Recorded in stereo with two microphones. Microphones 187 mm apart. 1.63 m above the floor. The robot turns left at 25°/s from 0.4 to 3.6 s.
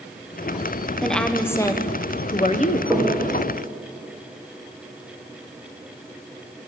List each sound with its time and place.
1.0 s a woman speaking: straight behind, 0.9 m; by 2.8 s 135° left, 0.9 m
2.9 s knocking: 5° left (ahead or behind), 3 m; by 3.2 s 10° left (ahead or behind), 3 m